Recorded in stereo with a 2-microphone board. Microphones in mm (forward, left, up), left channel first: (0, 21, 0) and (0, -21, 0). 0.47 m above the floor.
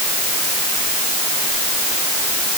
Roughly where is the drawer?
I don't hear a drawer.